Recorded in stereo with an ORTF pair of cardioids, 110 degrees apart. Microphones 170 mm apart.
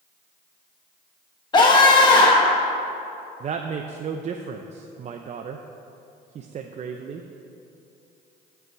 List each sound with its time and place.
1.5 s a scream: 25° left, 1.1 m
3.4 s a woman speaking: 40° right, 0.6 m